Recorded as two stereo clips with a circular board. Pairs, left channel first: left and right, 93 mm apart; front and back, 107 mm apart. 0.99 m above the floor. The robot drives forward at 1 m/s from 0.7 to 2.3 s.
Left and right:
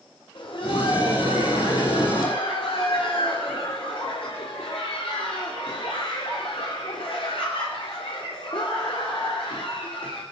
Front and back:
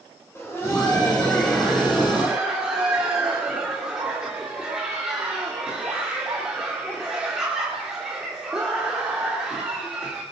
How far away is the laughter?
About 3 m.